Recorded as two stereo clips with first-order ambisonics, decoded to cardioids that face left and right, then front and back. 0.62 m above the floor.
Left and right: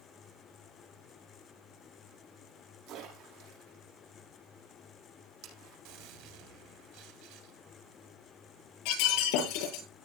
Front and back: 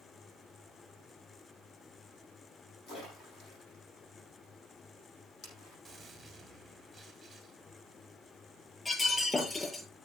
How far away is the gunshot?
About 2.5 m.